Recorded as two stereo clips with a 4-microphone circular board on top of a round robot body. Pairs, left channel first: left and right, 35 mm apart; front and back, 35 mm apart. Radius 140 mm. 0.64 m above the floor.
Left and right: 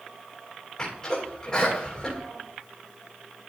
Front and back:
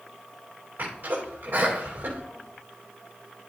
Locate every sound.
0.8 s a sneeze: 145° left, 3.5 m